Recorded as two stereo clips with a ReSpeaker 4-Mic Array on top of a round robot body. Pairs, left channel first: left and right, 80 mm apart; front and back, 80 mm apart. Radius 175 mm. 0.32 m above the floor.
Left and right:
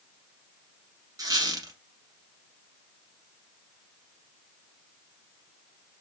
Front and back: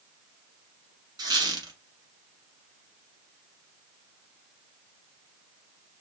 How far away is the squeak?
About 1.3 m.